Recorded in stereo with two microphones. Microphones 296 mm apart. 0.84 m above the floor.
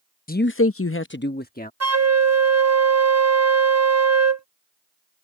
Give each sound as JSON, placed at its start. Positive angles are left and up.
{"t": 0.3, "sound": "a man speaking", "side_deg": 30}
{"t": 1.8, "sound": "a flute", "side_deg": -60}